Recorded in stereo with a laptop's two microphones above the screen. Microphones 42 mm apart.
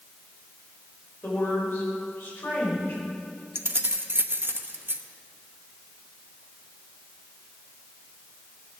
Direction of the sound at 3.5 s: 60° right (ahead or behind).